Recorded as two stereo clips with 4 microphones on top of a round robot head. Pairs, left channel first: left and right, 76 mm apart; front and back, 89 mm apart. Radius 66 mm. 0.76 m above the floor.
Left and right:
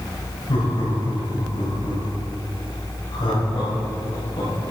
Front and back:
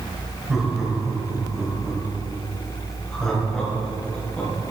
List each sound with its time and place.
0.5 s laughter: 95° left, 4 m; by 4.5 s 75° left, 5.5 m